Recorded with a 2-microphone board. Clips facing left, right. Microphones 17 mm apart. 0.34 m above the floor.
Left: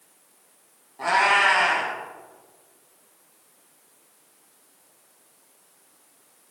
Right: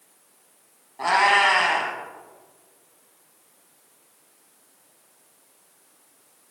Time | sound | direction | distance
1.0 | a cat meowing | 15° right (ahead or behind) | 1.8 m